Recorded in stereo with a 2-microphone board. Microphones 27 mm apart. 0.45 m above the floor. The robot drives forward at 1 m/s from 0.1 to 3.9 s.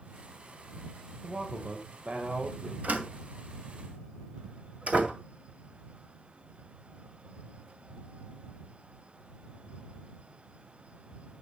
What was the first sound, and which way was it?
A man speaking, 50° right (ahead or behind).